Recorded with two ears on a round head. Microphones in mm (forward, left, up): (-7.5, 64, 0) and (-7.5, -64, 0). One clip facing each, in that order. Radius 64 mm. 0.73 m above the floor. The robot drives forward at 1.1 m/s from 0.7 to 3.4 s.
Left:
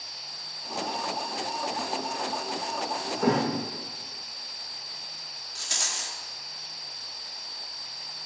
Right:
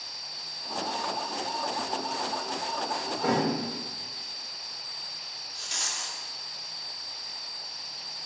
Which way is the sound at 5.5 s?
60° left (ahead or behind).